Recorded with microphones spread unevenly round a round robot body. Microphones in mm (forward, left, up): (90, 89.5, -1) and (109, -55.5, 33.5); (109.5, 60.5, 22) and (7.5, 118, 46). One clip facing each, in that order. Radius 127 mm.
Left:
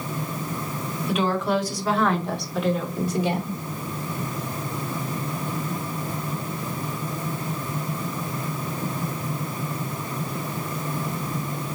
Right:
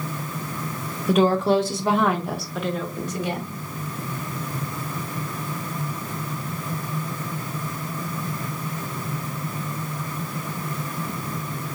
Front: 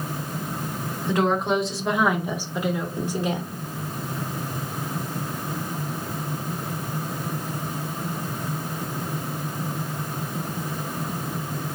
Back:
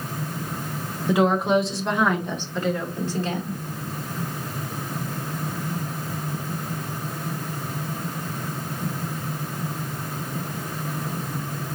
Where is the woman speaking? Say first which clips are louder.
Right 5 dB, back 3 dB; 115° right, 0.8 m; by 3.6 s 35° left, 1.3 m.